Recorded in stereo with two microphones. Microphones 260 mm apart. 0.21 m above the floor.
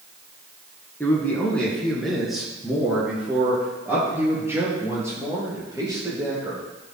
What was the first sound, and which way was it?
A man speaking, 10° left (ahead or behind).